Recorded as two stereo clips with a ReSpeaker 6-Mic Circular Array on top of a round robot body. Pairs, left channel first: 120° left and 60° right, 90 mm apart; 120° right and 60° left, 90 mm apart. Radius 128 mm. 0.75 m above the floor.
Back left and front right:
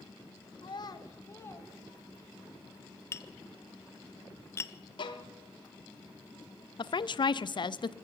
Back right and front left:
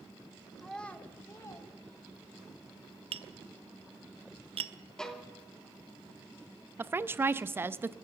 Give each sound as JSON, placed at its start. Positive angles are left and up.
{"t": 0.6, "sound": "a child speaking", "azimuth_deg": 150, "distance_m": 1.1}
{"t": 3.1, "sound": "tapping", "azimuth_deg": 60, "distance_m": 0.6}
{"t": 5.0, "sound": "a violin", "azimuth_deg": 155, "distance_m": 1.0}
{"t": 6.8, "sound": "a woman speaking", "azimuth_deg": 120, "distance_m": 0.6}